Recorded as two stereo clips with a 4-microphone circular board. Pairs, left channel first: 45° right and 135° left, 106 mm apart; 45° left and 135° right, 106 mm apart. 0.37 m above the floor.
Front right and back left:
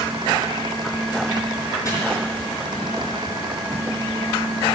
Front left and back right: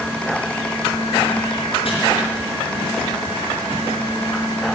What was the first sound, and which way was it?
Chopping, 15° left.